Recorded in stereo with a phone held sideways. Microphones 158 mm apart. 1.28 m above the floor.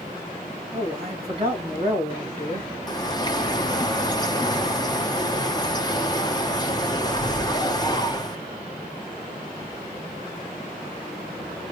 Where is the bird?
25° left (ahead or behind), 0.8 m.